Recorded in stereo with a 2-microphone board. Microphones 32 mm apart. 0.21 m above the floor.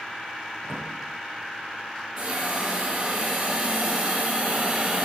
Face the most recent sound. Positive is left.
turn(degrees=-40)  # may be behind; listen again after turning